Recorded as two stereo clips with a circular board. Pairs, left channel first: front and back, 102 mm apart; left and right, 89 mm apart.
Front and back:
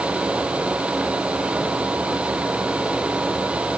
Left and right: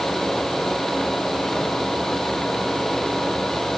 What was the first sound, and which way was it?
Only background noise.